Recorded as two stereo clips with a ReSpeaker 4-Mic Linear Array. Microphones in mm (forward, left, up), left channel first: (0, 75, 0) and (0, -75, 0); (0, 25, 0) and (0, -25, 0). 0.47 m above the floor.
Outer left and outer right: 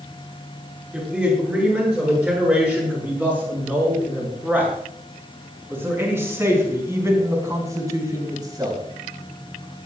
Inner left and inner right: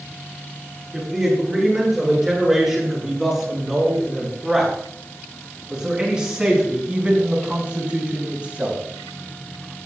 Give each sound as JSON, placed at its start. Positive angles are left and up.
{"t": 0.9, "sound": "a man speaking", "side_deg": -10, "distance_m": 8.5}